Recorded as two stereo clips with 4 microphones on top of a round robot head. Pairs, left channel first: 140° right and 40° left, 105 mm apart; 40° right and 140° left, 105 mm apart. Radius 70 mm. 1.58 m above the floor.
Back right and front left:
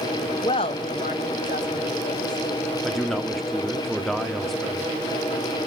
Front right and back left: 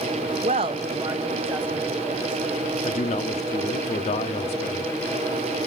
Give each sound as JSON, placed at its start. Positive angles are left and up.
{"t": 0.4, "sound": "a woman speaking", "azimuth_deg": 165, "distance_m": 0.7}
{"t": 2.8, "sound": "a man speaking", "azimuth_deg": -50, "distance_m": 0.9}